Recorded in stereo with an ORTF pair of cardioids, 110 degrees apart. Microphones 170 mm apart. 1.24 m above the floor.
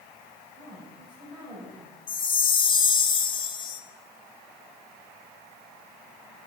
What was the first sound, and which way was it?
A woman speaking, 25° right.